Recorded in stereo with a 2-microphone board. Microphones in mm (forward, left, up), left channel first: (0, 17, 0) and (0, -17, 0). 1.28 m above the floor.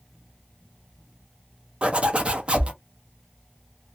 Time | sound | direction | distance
1.8 | a zipper | 30° right (ahead or behind) | 0.6 m